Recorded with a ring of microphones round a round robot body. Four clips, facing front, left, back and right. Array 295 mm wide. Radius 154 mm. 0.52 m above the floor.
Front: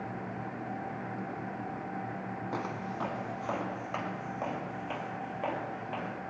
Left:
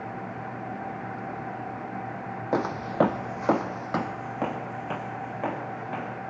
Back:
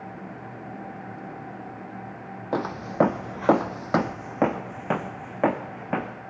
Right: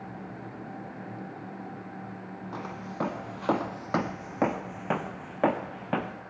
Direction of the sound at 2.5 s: 125° left.